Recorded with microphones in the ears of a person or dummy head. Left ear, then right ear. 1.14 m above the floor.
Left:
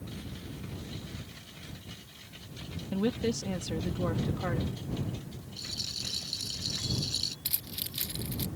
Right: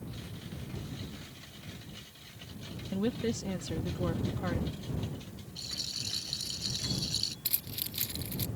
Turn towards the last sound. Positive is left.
turn(degrees=0)  # may be behind; listen again after turning